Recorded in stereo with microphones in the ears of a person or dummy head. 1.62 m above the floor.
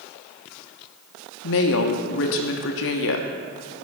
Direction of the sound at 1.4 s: 55° left (ahead or behind).